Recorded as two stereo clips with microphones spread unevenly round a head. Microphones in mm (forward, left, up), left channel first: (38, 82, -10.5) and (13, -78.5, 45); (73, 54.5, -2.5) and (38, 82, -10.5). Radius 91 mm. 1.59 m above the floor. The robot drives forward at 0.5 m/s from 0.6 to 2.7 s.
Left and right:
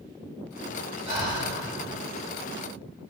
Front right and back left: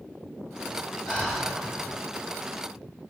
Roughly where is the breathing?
Right.